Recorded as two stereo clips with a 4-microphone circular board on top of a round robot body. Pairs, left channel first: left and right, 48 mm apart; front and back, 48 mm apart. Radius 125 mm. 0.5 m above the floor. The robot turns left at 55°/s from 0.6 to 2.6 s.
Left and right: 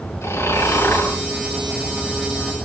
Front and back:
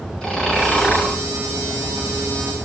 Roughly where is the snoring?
Left.